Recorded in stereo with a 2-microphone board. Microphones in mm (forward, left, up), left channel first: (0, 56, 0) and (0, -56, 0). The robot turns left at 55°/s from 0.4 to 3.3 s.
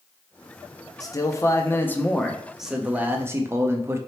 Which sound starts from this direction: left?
A man speaking, at 1.0 s.